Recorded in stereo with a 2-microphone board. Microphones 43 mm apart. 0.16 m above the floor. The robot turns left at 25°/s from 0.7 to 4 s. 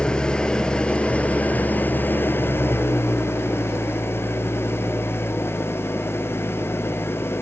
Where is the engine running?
160° left, 1.3 m; by 7.4 s 80° left, 1.3 m.